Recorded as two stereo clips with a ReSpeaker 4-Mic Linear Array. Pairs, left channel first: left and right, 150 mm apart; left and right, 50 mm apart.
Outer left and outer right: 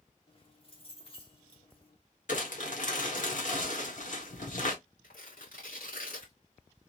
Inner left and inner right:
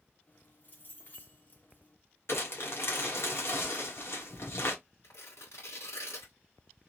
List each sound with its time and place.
0.3 s keys jangling: 40° left (ahead or behind), 1.5 m
2.3 s crumpling: 65° left (ahead or behind), 1.5 m
5.0 s tearing paper: 80° left, 2.5 m